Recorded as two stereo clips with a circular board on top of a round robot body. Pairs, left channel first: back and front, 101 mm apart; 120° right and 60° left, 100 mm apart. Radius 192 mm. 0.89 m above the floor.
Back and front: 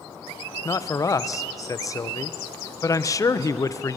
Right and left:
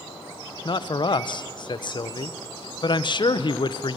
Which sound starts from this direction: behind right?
A man speaking, at 0.7 s.